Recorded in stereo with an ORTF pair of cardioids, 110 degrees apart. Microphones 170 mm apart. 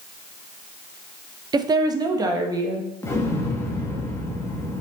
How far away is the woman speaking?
About 0.8 m.